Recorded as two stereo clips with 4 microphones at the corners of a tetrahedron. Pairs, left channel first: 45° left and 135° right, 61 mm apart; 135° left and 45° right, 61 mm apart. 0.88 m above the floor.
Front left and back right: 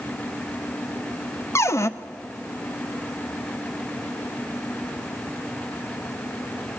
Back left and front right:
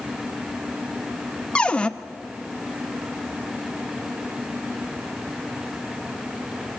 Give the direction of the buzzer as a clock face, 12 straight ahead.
I don't hear a buzzer.